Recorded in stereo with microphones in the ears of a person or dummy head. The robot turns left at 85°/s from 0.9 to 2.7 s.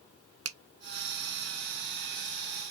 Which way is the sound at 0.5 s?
80° right.